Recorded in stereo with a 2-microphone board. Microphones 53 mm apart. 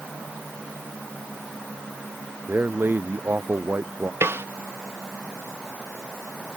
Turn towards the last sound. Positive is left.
turn(degrees=-50)  # may be behind; listen again after turning